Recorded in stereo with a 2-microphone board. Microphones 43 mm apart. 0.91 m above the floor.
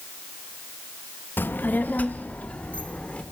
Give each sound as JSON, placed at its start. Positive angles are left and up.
{"t": 1.4, "sound": "a child speaking", "side_deg": 55, "distance_m": 0.6}